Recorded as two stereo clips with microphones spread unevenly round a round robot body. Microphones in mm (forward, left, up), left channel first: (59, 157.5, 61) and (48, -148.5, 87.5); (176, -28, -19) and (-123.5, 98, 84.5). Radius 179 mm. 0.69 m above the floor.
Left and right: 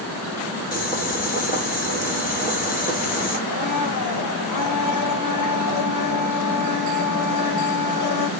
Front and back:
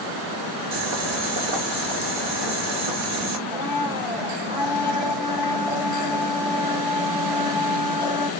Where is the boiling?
145° left, 1.5 m.